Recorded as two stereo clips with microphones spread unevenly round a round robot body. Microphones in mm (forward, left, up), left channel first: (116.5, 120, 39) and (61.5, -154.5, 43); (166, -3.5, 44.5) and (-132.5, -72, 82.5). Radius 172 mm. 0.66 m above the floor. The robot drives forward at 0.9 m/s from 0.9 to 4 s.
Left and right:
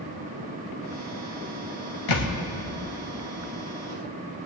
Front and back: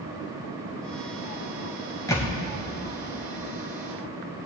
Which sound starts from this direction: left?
A thud, at 2.1 s.